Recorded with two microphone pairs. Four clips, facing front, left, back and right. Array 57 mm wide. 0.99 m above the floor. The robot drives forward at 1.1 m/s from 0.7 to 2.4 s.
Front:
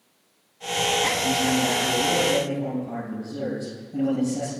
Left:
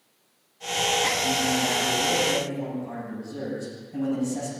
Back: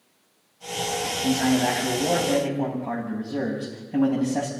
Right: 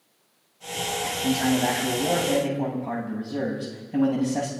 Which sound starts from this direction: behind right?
A man speaking, at 1.2 s.